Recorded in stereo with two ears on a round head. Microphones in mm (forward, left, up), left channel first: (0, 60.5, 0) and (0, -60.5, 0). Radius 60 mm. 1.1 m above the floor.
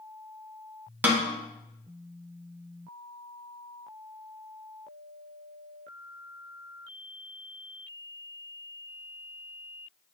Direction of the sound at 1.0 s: 15° right (ahead or behind).